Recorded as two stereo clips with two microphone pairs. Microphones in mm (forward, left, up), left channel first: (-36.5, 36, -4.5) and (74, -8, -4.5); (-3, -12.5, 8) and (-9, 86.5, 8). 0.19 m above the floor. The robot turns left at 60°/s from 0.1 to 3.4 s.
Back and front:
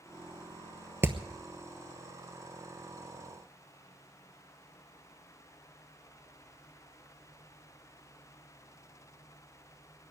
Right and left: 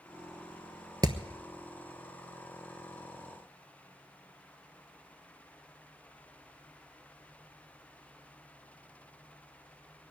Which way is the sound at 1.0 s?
50° left.